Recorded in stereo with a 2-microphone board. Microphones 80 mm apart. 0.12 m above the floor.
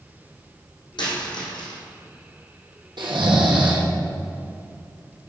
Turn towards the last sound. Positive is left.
turn(degrees=-75)  # may be behind; listen again after turning